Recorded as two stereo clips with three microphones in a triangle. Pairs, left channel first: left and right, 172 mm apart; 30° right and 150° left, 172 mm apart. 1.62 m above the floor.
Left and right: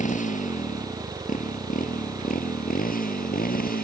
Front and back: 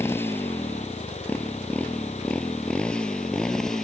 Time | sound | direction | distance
0.0 | a motorcycle | 45° left | ?